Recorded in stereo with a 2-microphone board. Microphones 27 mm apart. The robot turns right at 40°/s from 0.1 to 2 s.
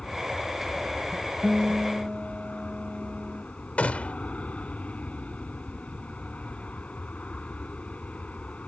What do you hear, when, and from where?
0.0 s an aircraft: 35° left; by 8.7 s 115° left
1.4 s a guitar: 10° right (ahead or behind); by 3.4 s 30° right (ahead or behind)
3.8 s a gunshot: 65° left (ahead or behind)